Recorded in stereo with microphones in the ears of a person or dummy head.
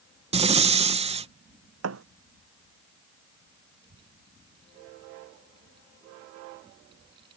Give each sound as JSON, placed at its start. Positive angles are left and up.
{"t": 0.3, "sound": "breathing", "side_deg": -35}
{"t": 1.8, "sound": "a thud", "side_deg": -75}
{"t": 3.8, "sound": "a child speaking", "side_deg": -25}